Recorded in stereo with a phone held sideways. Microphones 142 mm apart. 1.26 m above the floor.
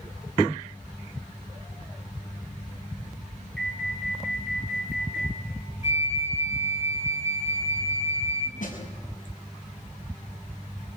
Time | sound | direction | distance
3.6 | an alarm | 5° left (ahead or behind) | 5.5 m
5.8 | a flute | 50° left (ahead or behind) | 1.4 m
8.6 | a snare drum | 65° left (ahead or behind) | 6 m